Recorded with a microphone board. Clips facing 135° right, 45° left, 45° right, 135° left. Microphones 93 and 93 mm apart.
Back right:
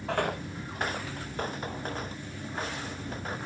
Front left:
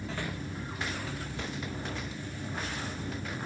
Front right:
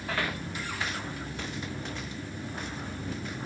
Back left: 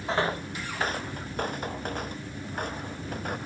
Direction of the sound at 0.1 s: 160° right.